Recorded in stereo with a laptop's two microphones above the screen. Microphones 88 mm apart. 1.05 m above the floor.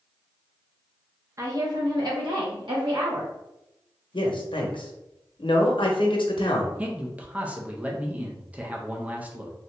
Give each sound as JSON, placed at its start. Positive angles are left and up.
{"t": 1.4, "sound": "a woman speaking", "side_deg": -35, "distance_m": 0.6}
{"t": 4.1, "sound": "a man speaking", "side_deg": 70, "distance_m": 0.8}
{"t": 6.8, "sound": "a man speaking", "side_deg": -15, "distance_m": 0.5}